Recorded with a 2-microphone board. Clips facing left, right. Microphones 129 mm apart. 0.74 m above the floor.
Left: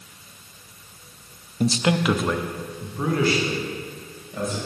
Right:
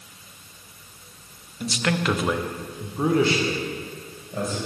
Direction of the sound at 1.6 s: 40° left (ahead or behind).